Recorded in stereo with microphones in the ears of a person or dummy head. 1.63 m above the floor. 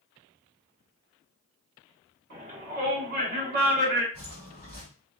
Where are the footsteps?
15° right (ahead or behind), 2.0 m.